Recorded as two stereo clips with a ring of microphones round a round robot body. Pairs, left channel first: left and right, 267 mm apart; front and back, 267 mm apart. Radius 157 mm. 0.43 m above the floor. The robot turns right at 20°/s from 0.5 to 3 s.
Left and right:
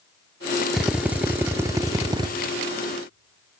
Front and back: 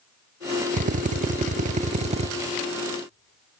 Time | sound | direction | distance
0.7 | a drill | 175° right | 0.7 m